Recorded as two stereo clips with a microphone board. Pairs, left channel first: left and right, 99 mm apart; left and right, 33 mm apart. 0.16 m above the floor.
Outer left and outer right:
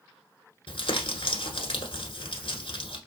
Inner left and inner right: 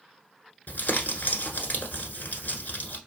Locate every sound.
0.7 s crumpling: 60° left (ahead or behind), 1.1 m